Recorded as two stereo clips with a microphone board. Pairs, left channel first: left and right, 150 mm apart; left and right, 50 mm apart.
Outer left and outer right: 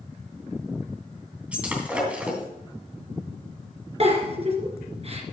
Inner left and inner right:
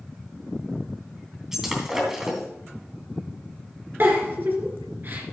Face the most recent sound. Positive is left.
turn(degrees=-45)  # may be behind; listen again after turning